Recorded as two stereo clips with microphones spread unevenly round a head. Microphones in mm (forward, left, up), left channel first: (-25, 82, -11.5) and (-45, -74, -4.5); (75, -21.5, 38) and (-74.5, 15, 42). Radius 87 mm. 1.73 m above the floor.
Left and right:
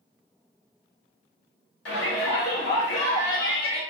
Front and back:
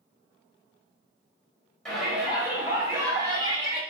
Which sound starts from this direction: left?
A shout, at 1.9 s.